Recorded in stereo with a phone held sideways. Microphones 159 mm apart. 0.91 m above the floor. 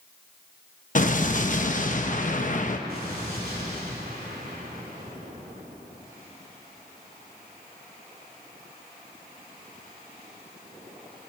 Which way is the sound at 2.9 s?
70° right (ahead or behind).